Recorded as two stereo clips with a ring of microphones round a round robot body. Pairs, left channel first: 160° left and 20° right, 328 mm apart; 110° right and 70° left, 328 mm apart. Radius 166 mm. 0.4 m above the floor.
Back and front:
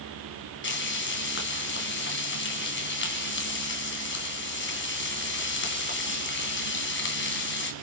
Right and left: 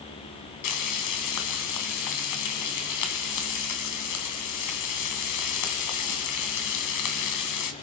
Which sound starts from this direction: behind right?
Frying, at 0.6 s.